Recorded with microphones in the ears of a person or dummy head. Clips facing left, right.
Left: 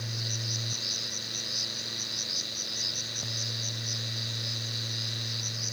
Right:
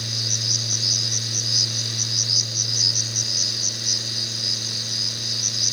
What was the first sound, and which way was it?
An insect, 60° right (ahead or behind).